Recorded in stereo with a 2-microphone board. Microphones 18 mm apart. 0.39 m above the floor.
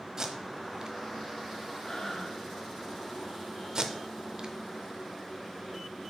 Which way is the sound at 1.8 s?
35° left (ahead or behind).